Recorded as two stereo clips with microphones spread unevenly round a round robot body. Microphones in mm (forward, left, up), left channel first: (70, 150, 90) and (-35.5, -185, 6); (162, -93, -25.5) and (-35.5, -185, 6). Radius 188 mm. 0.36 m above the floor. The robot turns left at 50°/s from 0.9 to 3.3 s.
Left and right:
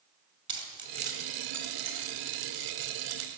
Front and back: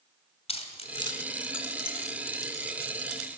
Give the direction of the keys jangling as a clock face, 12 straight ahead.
1 o'clock.